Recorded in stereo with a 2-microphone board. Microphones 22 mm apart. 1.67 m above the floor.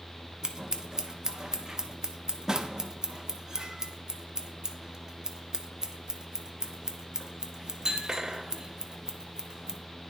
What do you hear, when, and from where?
0.4 s scissors: 30° right (ahead or behind), 0.5 m